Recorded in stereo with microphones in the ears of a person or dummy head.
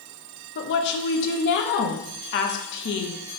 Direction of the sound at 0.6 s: 70° left (ahead or behind).